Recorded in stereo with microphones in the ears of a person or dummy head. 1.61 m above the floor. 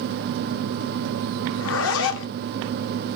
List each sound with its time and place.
1.5 s a zipper: 70° left (ahead or behind), 0.7 m